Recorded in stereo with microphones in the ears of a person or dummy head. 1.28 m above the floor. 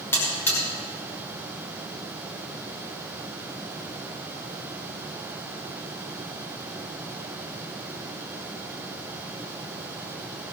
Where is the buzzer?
15° left (ahead or behind), 6 m.